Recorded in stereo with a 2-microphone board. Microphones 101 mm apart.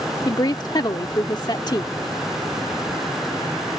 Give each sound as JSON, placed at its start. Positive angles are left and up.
{"t": 0.2, "sound": "a woman speaking", "side_deg": 45}